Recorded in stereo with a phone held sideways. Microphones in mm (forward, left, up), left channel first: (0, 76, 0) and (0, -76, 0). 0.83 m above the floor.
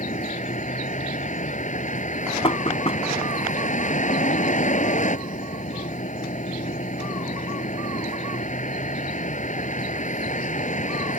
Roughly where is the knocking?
Left.